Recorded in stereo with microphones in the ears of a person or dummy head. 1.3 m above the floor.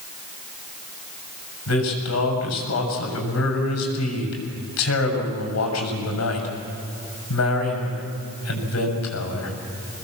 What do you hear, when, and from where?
1.7 s a man speaking: 90° left, 6.5 m